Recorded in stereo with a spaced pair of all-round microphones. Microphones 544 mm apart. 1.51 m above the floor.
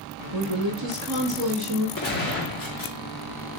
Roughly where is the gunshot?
Left.